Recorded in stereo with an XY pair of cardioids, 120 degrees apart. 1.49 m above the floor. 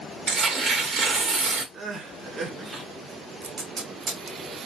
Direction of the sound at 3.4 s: 50° right.